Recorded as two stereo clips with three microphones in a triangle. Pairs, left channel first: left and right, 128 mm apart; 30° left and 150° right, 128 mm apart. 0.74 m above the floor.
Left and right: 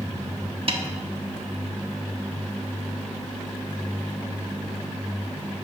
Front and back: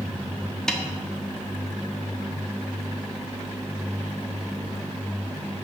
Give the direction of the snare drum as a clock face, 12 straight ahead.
2 o'clock.